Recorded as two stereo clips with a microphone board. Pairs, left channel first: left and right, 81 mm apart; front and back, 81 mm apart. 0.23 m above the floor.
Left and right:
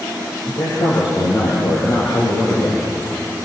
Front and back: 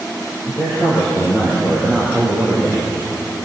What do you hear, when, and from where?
0.5 s a man speaking: 70° left, 7.5 m; by 2.8 s 85° left, 9 m